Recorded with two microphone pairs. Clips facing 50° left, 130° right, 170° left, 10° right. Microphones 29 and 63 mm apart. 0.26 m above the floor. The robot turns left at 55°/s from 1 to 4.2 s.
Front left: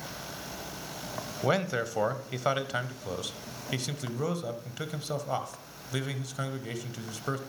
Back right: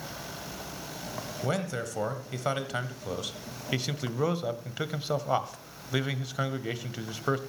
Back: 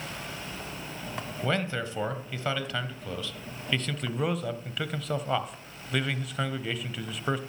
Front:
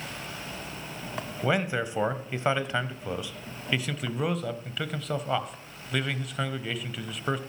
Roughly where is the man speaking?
Ahead left.